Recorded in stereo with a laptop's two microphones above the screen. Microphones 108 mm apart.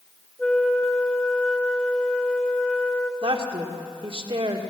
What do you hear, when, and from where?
0.4 s a flute: 10° left (ahead or behind), 2 m
3.2 s a woman speaking: 55° right (ahead or behind), 2 m